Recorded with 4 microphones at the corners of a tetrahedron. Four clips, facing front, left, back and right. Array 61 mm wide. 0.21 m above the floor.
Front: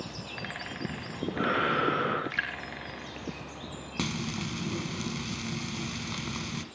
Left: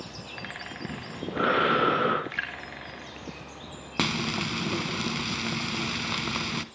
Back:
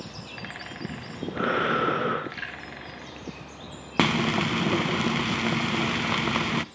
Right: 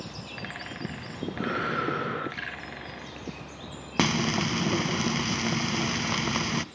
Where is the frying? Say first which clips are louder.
Right 3 dB, back 11 dB; 170° right, 0.6 m.